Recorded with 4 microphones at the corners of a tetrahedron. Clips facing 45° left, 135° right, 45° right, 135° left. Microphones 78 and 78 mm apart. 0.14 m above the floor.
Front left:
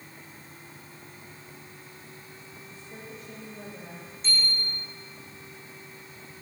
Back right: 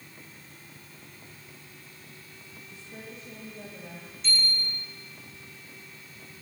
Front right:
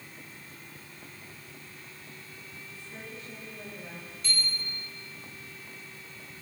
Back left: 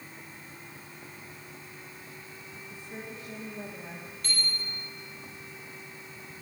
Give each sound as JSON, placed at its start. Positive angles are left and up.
{"t": 2.7, "sound": "a woman speaking", "azimuth_deg": 95, "distance_m": 9.0}
{"t": 4.2, "sound": "a bicycle bell", "azimuth_deg": 100, "distance_m": 10.0}